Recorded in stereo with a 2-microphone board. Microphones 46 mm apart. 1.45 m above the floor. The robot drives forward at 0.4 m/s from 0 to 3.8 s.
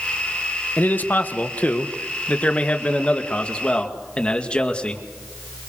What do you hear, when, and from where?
0.8 s a man speaking: 40° left (ahead or behind), 1.4 m; by 5.0 s 25° left (ahead or behind), 2.5 m